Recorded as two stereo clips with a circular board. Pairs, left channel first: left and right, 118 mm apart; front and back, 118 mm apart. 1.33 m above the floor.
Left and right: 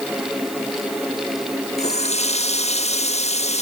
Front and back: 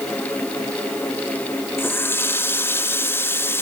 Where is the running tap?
70° left, 1.4 m.